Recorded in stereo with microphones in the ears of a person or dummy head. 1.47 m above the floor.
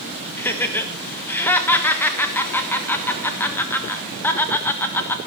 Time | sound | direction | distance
0.4 | laughter | 10° left (ahead or behind) | 1.2 m